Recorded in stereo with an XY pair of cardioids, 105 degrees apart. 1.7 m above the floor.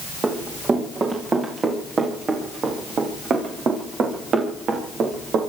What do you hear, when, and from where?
0.2 s running footsteps: 35° right, 8 m; by 5.4 s 65° right, 7 m